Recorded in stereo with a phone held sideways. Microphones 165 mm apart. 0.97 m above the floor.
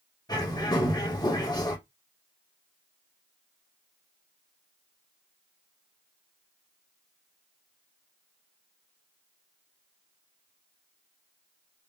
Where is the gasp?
No gasp in this recording.